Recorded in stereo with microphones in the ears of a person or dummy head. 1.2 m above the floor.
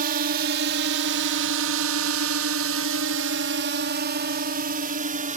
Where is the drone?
45° right (ahead or behind); by 5.4 s 40° right (ahead or behind).